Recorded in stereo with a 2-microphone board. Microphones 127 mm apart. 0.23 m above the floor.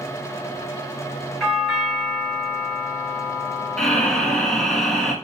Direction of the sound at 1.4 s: 5° left (ahead or behind).